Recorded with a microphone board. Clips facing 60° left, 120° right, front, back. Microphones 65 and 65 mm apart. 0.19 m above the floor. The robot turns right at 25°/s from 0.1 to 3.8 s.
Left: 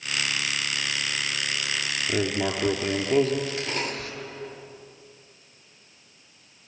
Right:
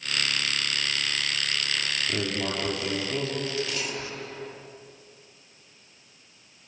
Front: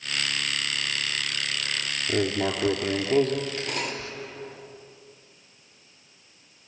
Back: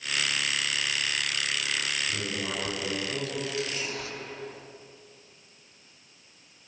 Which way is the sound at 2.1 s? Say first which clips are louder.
Left 6 dB, front 7 dB; 5° left.